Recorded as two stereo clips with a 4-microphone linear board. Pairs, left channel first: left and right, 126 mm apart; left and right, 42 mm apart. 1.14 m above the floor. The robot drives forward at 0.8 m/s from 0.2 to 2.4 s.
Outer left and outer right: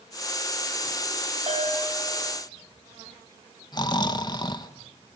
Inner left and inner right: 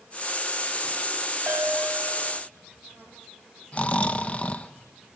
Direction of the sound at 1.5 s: 70° right (ahead or behind).